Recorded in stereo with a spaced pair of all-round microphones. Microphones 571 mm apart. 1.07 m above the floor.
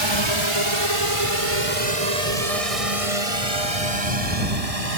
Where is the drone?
50° right (ahead or behind); by 5.0 s 80° right.